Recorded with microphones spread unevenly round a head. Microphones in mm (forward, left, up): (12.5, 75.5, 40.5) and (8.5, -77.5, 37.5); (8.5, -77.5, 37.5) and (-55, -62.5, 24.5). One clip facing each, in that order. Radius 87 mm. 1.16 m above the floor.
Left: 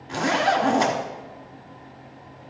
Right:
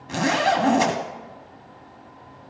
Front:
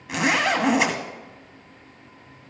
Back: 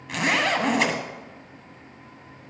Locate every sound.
0.1 s a zipper: 80° right, 1.3 m